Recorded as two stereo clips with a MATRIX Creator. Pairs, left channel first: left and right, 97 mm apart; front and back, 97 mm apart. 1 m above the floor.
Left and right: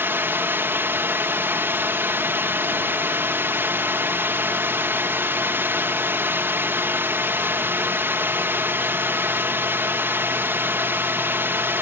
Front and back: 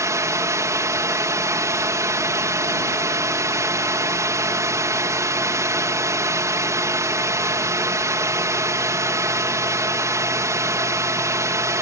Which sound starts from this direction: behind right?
A drone, at 0.0 s.